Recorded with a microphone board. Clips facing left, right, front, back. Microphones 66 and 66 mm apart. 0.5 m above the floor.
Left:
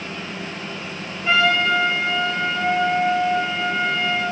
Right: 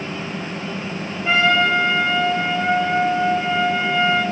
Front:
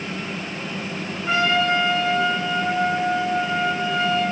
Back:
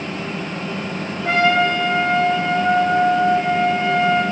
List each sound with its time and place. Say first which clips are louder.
1.2 s a trumpet: right 1 dB, back 4 dB; 175° right, 3 m